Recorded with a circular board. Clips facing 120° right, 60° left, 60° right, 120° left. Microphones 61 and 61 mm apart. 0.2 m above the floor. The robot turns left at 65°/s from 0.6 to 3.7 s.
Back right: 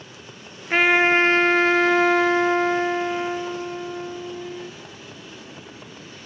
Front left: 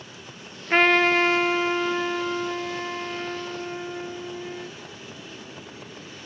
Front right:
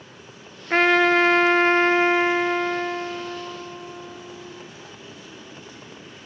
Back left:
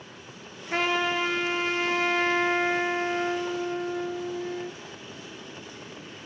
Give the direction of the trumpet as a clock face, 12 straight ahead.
1 o'clock.